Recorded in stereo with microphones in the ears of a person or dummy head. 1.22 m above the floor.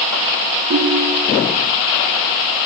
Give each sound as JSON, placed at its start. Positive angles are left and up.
{"t": 0.7, "sound": "a ringtone", "side_deg": -65, "distance_m": 5.5}